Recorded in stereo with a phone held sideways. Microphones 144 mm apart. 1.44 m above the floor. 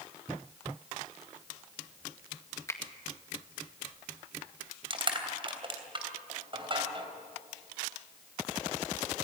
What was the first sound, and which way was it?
A finger snap, 20° left (ahead or behind).